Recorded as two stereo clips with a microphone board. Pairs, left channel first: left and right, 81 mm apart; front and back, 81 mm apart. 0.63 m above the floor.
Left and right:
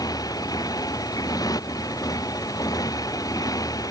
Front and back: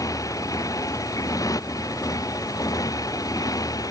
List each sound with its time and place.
0.0 s a motorcycle: 50° left; by 3.9 s 45° left